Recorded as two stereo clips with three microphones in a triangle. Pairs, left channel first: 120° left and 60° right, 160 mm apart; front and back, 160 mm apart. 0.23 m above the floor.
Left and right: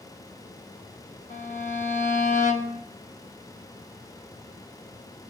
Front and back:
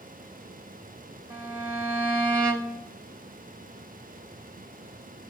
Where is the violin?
110° left, 1.0 m.